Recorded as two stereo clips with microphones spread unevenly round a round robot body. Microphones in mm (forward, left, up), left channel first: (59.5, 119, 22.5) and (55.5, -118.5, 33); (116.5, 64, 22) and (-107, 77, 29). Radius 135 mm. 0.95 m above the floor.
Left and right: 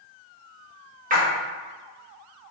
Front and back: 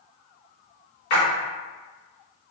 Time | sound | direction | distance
1.1 | a splash | 35° right | 0.9 m